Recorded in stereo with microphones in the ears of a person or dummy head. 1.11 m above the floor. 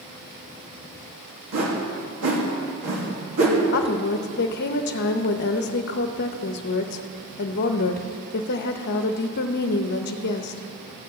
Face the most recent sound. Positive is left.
turn(degrees=55)  # may be behind; listen again after turning